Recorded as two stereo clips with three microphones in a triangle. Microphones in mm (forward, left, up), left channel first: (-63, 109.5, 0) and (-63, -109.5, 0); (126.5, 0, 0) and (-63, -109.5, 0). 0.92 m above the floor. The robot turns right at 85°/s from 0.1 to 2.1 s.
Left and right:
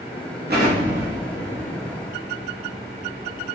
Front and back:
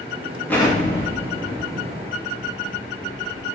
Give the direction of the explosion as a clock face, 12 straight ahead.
2 o'clock.